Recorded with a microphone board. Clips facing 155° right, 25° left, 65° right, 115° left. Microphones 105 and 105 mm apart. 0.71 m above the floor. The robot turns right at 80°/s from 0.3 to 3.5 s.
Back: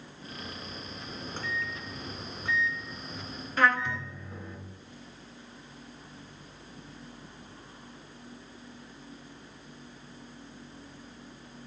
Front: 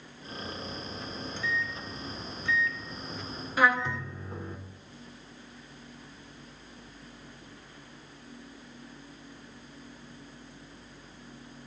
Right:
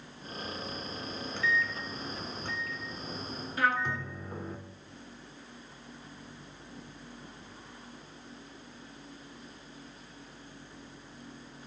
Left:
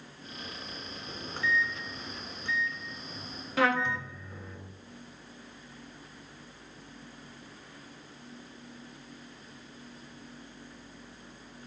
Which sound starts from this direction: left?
A trumpet, at 3.6 s.